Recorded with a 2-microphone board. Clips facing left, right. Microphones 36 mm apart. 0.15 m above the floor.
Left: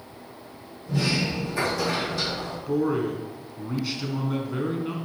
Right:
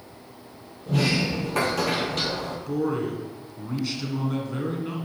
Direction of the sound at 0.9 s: 70° right (ahead or behind).